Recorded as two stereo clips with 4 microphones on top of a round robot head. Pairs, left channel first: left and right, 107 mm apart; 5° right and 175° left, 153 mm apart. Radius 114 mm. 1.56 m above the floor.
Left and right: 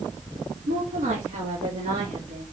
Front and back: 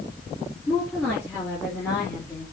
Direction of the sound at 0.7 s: 85° right.